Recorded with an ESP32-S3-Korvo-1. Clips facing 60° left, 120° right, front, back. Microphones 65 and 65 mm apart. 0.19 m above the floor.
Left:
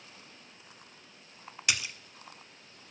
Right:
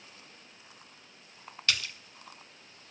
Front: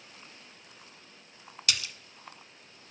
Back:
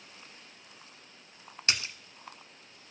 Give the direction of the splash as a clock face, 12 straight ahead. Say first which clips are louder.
Even, back 1 dB; 8 o'clock.